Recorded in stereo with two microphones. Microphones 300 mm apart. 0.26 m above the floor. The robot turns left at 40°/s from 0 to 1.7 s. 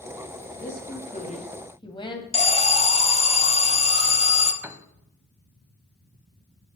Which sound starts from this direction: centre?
A piano, at 4.6 s.